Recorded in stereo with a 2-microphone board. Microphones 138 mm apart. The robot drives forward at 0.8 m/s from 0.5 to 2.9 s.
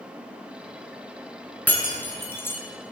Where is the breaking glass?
10° left (ahead or behind), 2.5 m; by 2.6 s 15° left (ahead or behind), 1.7 m.